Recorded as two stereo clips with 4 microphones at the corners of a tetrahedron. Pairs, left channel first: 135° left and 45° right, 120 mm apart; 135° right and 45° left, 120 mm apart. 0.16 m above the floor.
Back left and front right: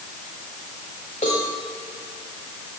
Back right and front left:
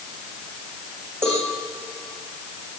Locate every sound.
1.2 s a cowbell: 115° left, 8.5 m